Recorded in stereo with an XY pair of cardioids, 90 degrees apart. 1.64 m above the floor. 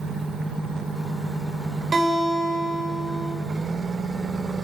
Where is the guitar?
40° right, 8 m.